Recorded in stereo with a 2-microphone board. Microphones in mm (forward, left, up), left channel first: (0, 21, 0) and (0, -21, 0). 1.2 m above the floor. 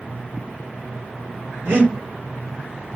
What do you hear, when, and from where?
1.6 s breathing: 75° right (ahead or behind), 1.2 m